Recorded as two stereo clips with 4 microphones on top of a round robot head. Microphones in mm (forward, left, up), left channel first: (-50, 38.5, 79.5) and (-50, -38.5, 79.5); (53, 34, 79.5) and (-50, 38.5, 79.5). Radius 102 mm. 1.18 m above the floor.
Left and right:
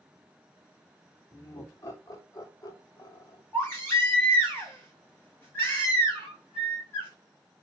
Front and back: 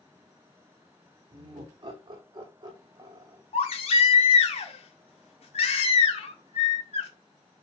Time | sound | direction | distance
1.3 | laughter | 145° left | 3.5 m
3.5 | a baby crying | 20° left | 1.9 m